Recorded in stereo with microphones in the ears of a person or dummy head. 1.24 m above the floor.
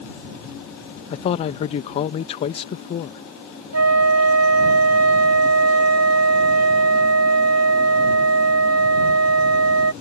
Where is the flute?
80° right.